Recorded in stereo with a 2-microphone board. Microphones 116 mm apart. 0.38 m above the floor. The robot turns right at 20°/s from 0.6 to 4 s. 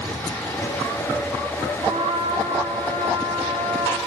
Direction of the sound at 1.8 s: 105° right.